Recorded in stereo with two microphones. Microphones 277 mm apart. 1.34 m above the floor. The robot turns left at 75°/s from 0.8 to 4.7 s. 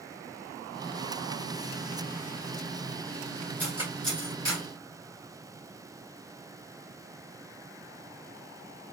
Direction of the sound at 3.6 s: 5° left (ahead or behind).